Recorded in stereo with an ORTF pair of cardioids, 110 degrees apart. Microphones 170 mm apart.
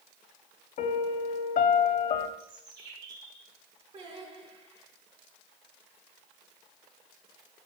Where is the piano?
60° left, 1.2 m.